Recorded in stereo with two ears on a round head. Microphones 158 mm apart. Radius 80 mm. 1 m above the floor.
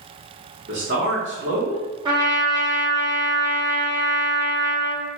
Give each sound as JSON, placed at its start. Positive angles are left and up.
{"t": 0.7, "sound": "a man speaking", "side_deg": -65, "distance_m": 0.7}
{"t": 2.0, "sound": "a trumpet", "side_deg": -25, "distance_m": 0.9}